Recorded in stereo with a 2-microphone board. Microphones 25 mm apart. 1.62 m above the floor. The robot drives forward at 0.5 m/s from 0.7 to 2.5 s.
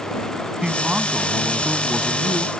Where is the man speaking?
25° right (ahead or behind).